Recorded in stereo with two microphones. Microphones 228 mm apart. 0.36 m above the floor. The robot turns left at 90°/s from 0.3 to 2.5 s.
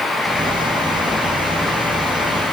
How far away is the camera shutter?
I don't hear a camera shutter.